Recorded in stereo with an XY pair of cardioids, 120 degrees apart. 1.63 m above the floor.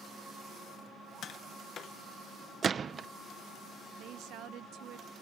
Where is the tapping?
55° left.